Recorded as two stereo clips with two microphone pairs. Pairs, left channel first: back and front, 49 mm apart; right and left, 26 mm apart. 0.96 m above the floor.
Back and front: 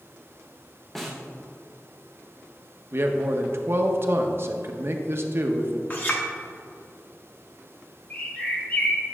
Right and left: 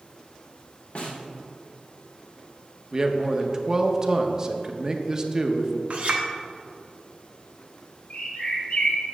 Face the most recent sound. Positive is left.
turn(degrees=-125)